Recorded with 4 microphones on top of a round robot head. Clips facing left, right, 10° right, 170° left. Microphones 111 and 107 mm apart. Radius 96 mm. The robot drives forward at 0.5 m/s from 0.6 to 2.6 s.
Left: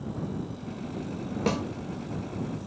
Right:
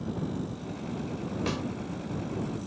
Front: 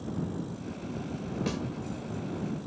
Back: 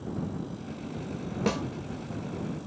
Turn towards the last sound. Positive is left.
turn(degrees=150)